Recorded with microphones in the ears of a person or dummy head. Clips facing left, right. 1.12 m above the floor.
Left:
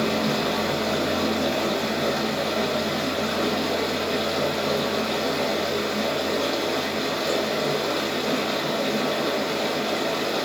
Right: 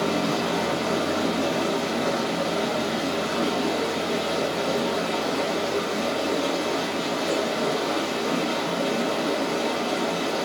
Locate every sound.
0.0 s running water: 25° left (ahead or behind), 1.1 m